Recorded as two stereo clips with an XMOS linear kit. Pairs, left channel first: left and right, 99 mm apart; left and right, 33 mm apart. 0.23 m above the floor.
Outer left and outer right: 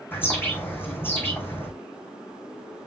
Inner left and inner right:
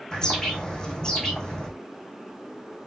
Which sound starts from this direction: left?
A bird, at 0.1 s.